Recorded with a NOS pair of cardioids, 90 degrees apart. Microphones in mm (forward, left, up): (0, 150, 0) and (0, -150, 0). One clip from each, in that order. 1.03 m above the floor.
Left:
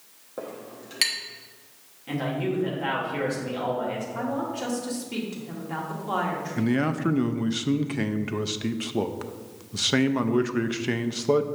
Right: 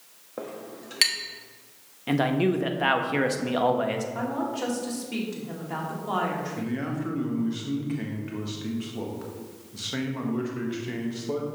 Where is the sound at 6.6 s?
45° left, 0.6 m.